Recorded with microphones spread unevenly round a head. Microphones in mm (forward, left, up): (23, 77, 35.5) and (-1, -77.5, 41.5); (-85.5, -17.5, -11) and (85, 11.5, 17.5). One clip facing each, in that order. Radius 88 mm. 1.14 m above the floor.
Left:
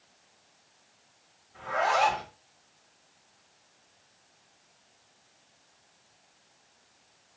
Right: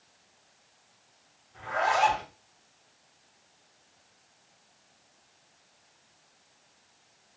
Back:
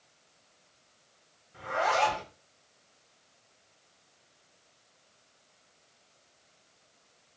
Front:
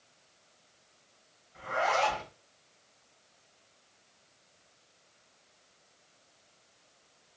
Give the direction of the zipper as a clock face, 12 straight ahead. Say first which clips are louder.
Even, back 1 dB; 6 o'clock.